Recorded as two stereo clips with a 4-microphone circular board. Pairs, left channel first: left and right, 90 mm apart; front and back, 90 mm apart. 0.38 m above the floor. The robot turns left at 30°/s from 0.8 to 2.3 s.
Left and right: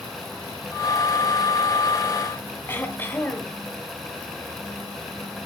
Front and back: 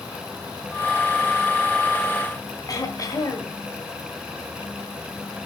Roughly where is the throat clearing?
Ahead left.